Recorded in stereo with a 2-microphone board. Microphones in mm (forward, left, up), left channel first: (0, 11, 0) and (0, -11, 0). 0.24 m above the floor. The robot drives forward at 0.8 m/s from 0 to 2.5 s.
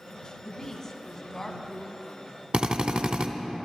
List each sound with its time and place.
0.4 s a woman speaking: 30° left (ahead or behind), 1.4 m; by 2.4 s 20° left (ahead or behind), 2.5 m
2.5 s a drill: 55° right (ahead or behind), 0.9 m